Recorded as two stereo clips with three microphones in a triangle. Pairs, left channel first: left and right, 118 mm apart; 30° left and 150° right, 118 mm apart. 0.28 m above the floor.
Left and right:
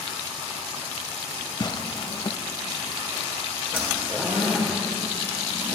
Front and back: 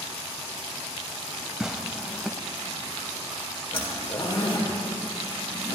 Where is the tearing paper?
125° left, 0.5 m.